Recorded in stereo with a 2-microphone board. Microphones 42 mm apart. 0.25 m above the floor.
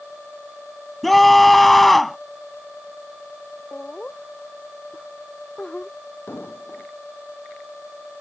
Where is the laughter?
25° left (ahead or behind).